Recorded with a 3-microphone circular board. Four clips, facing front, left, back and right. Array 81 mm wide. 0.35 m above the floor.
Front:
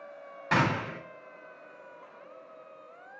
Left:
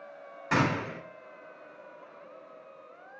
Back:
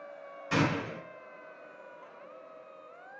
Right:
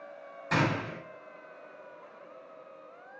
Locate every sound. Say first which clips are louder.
0.5 s a gunshot: left 1 dB, front 2 dB; 15° left, 2.5 m